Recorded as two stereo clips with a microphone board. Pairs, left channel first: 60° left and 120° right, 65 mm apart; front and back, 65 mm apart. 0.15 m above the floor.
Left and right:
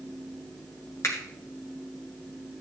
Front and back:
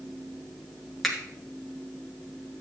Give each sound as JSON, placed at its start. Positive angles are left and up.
{"t": 1.0, "sound": "a finger snap", "azimuth_deg": 90, "distance_m": 2.0}